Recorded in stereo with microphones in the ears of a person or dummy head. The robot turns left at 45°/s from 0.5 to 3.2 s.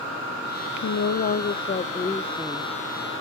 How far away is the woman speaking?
About 0.6 m.